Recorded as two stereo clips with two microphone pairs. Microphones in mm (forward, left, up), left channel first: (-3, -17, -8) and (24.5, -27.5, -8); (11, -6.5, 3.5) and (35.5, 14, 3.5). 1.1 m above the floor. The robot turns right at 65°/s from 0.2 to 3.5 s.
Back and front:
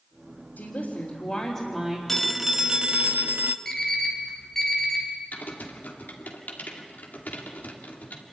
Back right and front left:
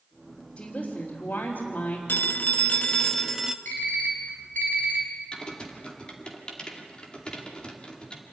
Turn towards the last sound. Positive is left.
turn(degrees=160)